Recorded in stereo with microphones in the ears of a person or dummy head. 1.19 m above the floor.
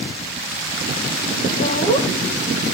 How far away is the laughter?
About 1.9 m.